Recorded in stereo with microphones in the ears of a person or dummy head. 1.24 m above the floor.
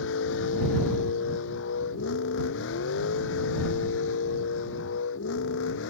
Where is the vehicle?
75° left (ahead or behind).